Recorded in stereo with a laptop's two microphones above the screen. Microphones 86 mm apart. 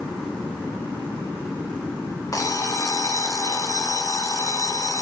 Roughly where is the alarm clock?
Left.